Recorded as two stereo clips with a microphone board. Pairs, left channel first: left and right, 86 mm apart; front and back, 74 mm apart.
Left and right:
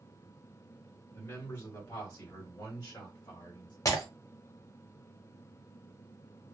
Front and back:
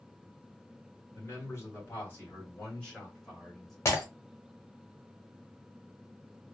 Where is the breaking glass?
45° left, 1.0 m.